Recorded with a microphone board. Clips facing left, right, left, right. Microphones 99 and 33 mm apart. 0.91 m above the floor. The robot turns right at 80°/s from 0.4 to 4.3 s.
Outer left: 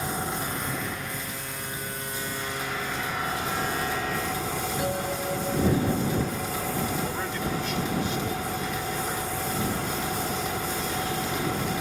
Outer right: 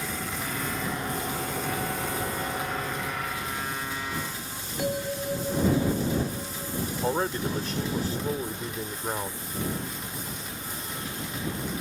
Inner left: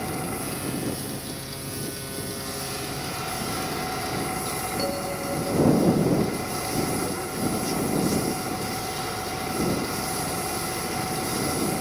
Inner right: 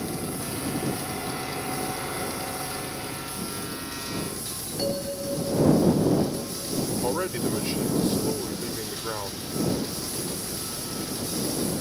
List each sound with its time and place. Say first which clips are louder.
0.0 s an engine running: outer left 3 dB, inner left 2 dB; 155° left; by 11.8 s 105° left
4.8 s a bell: outer right 3 dB, inner right 4 dB; 5° right (ahead or behind)
7.0 s a man speaking: outer right 3 dB, inner right 1 dB; 40° right (ahead or behind)